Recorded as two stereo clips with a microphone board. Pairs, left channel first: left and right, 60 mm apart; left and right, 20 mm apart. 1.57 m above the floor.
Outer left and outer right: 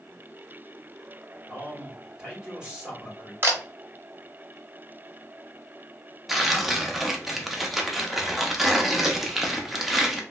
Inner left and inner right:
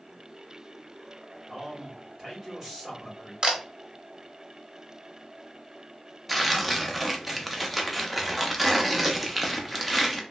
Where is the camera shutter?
40° right (ahead or behind), 0.7 m.